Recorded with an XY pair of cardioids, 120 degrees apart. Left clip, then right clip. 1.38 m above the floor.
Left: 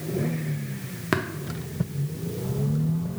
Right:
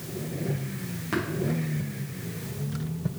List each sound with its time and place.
1.1 s tapping: 60° left, 0.9 m